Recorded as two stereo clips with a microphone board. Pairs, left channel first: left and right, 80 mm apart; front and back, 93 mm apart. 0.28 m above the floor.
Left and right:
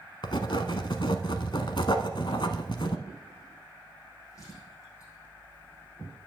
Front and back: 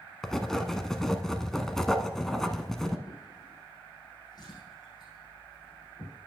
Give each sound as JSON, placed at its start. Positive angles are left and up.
{"t": 0.2, "sound": "writing", "azimuth_deg": 85, "distance_m": 0.8}
{"t": 3.1, "sound": "a drawer", "azimuth_deg": 40, "distance_m": 5.0}